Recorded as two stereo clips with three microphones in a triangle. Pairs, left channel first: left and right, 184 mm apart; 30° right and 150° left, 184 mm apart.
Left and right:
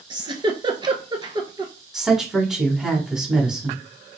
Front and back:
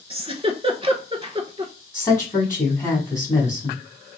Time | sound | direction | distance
0.1 | a giggle | 150° right | 0.6 m
1.9 | a woman speaking | 10° right | 1.1 m